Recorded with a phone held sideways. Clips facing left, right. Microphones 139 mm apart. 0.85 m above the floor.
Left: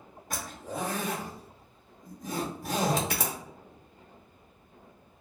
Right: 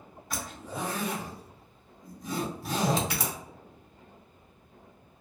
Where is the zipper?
50° left (ahead or behind), 0.9 m.